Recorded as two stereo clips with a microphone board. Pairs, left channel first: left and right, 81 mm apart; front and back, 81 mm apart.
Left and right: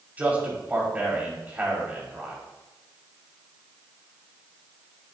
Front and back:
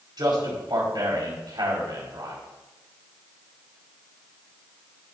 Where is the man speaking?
160° right, 5 m.